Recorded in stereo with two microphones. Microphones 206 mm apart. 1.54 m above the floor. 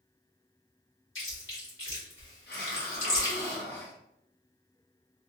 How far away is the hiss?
About 0.9 m.